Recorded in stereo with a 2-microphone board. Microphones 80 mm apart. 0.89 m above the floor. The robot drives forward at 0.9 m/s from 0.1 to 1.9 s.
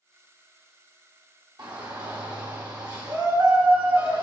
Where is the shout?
65° right (ahead or behind), 1.6 m.